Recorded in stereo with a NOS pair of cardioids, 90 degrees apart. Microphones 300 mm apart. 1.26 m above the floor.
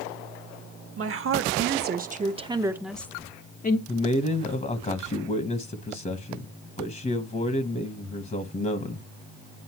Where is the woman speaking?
45° right, 1.5 m; by 3.8 s 30° left, 0.9 m.